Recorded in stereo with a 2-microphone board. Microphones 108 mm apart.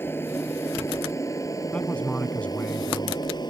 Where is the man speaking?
10° left (ahead or behind).